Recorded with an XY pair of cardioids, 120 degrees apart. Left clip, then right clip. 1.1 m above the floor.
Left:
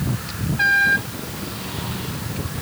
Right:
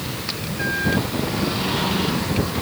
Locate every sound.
Only background noise.